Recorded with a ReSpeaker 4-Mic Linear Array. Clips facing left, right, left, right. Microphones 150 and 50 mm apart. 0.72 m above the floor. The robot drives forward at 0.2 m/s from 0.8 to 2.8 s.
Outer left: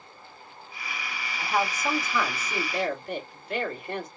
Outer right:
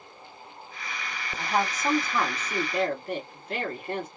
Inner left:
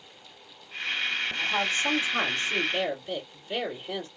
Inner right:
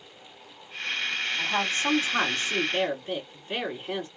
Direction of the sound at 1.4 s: 40° right (ahead or behind).